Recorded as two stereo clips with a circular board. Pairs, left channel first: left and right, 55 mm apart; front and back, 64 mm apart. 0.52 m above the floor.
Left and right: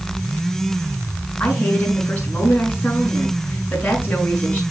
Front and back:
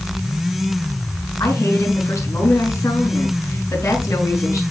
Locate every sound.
1.4 s a woman speaking: 35° left, 5.5 m